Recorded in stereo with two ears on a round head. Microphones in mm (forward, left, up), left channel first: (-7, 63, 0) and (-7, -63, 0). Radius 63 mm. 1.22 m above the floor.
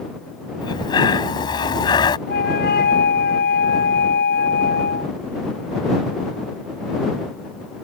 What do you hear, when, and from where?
0.6 s breathing: 30° left (ahead or behind)
2.3 s a flute: 80° left